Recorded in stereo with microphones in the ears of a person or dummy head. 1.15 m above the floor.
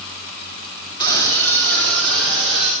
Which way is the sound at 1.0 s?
25° left (ahead or behind).